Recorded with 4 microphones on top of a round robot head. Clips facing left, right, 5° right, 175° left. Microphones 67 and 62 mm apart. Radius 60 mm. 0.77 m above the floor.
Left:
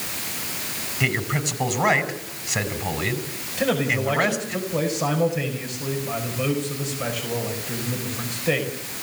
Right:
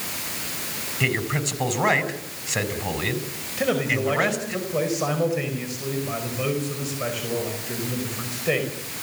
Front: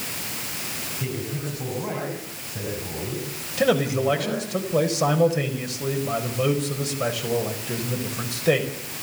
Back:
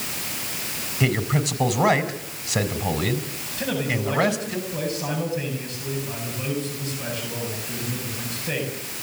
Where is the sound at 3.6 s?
Straight ahead, 5 m.